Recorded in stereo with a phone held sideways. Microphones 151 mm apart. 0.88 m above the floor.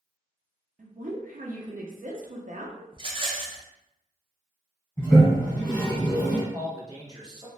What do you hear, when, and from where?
0.8 s a woman speaking: 65° right (ahead or behind), 0.7 m
2.9 s a rattle: 35° right (ahead or behind), 0.6 m
5.0 s a toilet flushing: 15° left (ahead or behind), 1.5 m
6.5 s a man speaking: 30° right (ahead or behind), 0.9 m